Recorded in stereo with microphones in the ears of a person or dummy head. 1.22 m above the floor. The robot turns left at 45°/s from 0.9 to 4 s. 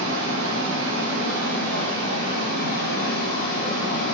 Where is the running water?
160° right, 1.6 m; by 4.1 s 60° left, 1.6 m.